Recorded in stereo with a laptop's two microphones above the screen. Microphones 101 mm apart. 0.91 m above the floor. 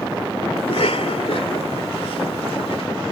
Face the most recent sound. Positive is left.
turn(degrees=80)